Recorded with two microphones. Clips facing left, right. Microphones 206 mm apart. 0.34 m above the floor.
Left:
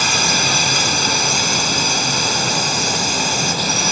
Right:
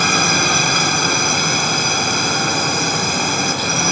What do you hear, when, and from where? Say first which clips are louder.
0.0 s a drone: right 3 dB; 55° right (ahead or behind)